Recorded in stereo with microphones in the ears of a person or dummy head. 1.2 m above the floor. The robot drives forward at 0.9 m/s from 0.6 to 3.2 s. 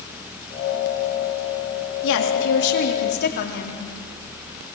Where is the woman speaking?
70° left (ahead or behind), 2.5 m; by 3.8 s 55° left (ahead or behind), 3 m.